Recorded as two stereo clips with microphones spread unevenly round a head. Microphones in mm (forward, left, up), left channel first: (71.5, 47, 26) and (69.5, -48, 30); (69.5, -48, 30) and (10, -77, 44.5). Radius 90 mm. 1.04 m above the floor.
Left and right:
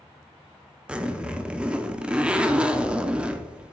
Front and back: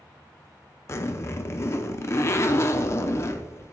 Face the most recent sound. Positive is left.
turn(degrees=-20)